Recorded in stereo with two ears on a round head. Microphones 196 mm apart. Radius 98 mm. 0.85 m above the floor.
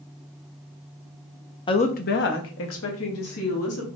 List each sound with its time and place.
1.7 s a woman speaking: 20° left (ahead or behind), 0.6 m; by 3.9 s 80° left, 1.9 m